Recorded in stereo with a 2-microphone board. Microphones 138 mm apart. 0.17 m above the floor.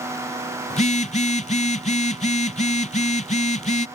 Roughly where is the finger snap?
I don't hear a finger snap.